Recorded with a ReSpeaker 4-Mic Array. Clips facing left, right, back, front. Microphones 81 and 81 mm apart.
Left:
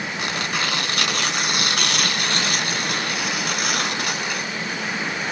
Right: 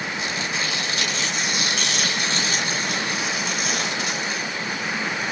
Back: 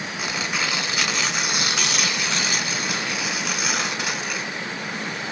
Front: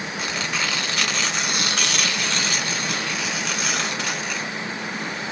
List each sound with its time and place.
0.2 s tearing paper: 100° left, 1.3 m